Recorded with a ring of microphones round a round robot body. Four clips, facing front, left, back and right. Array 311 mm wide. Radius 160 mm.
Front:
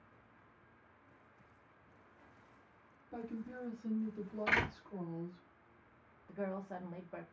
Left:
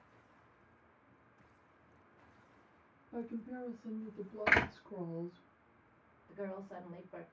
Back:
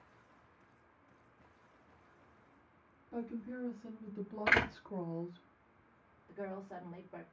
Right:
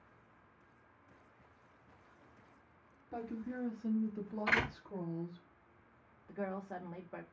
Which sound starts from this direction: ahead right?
A woman speaking, at 6.3 s.